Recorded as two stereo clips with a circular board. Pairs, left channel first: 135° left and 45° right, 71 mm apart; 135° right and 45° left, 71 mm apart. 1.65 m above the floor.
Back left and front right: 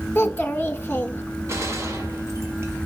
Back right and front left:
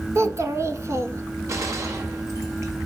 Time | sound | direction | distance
0.1 | a child speaking | 80° left | 1.4 m
1.5 | a gunshot | straight ahead | 2 m